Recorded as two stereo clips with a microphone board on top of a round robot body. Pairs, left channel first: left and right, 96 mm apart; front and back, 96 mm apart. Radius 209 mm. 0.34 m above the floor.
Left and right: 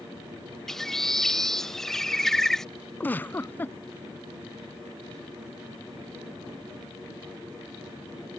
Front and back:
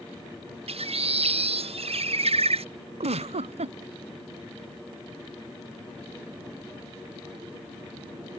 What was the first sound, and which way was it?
A bird, 175° left.